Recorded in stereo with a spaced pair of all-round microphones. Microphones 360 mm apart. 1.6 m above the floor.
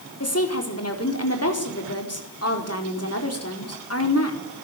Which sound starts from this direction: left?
A woman speaking, at 0.2 s.